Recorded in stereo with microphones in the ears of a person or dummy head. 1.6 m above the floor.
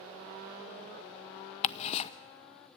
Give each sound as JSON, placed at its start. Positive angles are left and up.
{"t": 1.6, "sound": "ticking", "side_deg": 40, "distance_m": 0.7}